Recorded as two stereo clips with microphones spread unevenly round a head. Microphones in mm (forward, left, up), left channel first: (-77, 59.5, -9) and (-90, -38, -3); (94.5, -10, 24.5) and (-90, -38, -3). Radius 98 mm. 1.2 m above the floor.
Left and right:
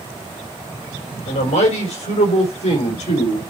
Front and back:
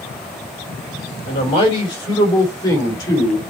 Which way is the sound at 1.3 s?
70° left.